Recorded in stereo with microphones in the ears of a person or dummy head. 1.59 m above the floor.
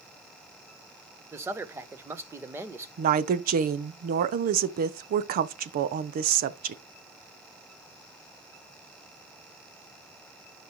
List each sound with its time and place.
1.3 s a man speaking: 15° right (ahead or behind), 0.7 m
3.0 s a woman speaking: 45° right (ahead or behind), 0.6 m